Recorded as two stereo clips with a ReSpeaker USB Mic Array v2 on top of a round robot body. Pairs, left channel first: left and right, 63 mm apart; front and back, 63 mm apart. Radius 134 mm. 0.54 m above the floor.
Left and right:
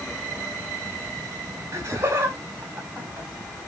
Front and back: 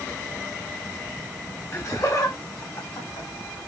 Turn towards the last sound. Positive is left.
turn(degrees=-15)